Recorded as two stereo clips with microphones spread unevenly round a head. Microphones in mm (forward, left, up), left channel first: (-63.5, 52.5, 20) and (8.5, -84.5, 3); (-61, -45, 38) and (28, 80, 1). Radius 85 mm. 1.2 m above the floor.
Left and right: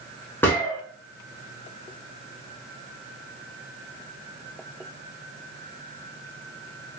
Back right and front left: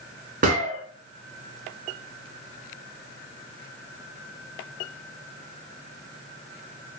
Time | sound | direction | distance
0.4 | a gunshot | 65° left | 1.0 m